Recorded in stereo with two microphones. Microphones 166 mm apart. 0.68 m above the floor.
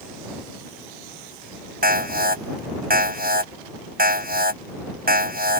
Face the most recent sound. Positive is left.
turn(degrees=-65)  # may be behind; listen again after turning